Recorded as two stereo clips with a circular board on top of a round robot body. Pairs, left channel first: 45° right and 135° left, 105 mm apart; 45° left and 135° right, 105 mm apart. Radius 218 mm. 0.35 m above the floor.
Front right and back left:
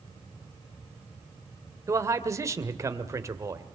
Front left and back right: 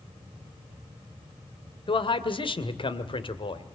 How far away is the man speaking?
About 2.5 m.